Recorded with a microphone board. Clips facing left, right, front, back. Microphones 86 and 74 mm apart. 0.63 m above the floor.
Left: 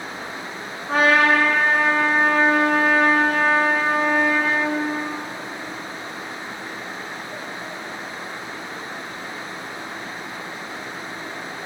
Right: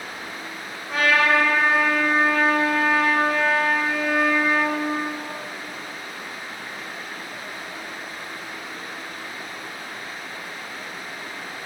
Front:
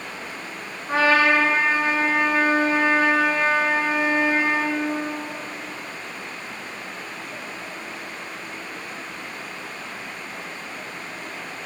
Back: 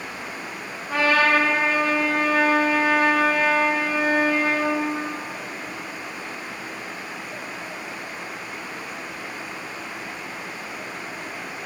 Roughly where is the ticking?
I don't hear ticking.